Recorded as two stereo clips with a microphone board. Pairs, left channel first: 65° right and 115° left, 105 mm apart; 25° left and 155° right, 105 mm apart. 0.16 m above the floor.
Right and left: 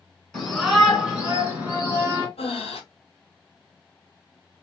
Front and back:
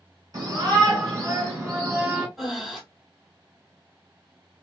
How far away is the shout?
About 1.9 m.